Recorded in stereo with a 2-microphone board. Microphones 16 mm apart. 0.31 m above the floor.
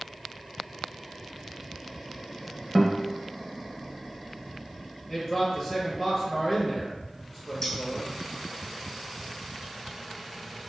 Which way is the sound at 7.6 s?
25° left (ahead or behind).